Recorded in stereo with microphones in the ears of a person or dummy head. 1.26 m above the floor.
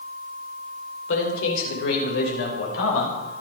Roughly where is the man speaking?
Left.